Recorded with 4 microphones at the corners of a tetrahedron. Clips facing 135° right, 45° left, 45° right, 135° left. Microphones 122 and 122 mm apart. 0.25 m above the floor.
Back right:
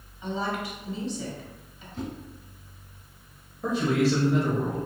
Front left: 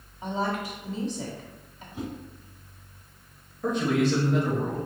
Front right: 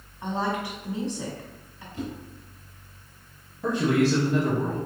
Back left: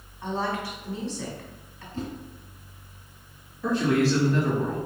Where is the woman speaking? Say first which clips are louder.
Front left 1 dB, front right 1 dB; 20° left, 1.3 m.